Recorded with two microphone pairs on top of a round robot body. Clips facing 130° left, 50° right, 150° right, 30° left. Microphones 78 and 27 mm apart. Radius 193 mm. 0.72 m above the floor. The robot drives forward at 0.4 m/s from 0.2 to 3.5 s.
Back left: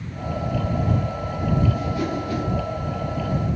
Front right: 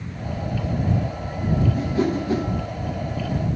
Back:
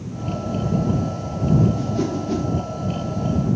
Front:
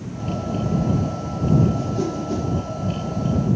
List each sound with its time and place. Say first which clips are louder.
1.7 s a whoosh: front right 3 dB, back 1 dB; 90° right, 1.9 m; by 2.5 s 100° right, 1.9 m